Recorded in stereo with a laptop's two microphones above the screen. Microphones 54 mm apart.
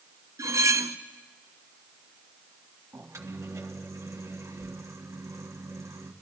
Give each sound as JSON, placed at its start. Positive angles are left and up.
{"t": 0.4, "sound": "cutlery clinking", "side_deg": -75, "distance_m": 0.5}
{"t": 2.9, "sound": "a microwave", "side_deg": -70, "distance_m": 1.4}